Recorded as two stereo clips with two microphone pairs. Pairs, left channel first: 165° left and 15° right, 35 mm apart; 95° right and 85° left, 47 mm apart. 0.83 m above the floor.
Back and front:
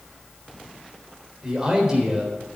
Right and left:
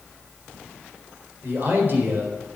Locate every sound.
1.4 s a man speaking: 50° left, 4 m